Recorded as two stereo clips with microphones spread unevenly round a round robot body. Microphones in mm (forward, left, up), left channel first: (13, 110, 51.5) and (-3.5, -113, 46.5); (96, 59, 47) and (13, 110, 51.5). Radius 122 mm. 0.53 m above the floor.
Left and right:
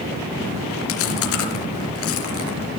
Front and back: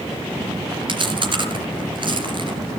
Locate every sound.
0.9 s chewing: 115° left, 4 m